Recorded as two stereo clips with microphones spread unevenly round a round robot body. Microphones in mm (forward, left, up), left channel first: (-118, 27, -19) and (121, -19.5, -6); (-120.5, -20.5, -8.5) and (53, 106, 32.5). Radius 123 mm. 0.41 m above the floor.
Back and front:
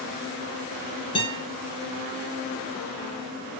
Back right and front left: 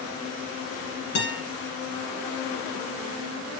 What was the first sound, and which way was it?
A guitar, 120° right.